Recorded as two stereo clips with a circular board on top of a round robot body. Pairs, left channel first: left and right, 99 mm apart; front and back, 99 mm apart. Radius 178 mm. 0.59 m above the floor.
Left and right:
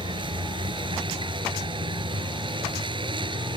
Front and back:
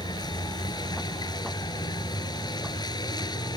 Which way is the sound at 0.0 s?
50° right.